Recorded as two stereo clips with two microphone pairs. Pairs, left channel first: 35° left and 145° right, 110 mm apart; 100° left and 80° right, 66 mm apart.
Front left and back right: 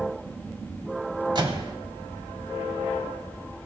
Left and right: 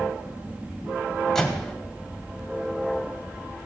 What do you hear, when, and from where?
1.4 s a microwave: straight behind, 2 m